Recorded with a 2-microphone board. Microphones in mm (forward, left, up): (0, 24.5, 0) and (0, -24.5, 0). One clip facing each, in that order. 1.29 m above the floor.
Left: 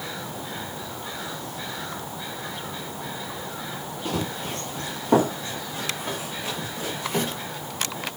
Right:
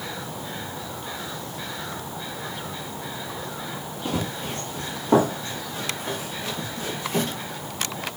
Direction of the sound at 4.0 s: 10° right (ahead or behind).